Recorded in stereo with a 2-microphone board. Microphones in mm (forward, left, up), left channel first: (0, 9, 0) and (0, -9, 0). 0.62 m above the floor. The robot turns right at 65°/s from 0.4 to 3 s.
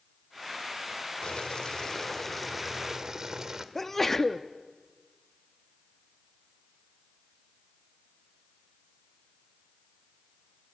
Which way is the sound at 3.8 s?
20° left (ahead or behind).